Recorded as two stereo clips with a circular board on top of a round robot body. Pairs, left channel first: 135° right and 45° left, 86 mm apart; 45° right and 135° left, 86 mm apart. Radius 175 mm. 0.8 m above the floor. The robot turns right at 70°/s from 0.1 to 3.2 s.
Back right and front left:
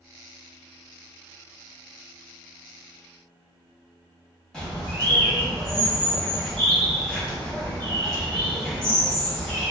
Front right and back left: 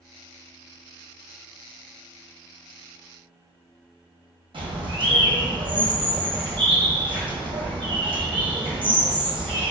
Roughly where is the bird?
Behind left.